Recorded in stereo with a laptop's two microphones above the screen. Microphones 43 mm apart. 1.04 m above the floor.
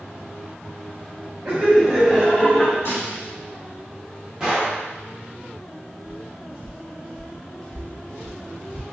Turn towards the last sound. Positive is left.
turn(degrees=25)  # may be behind; listen again after turning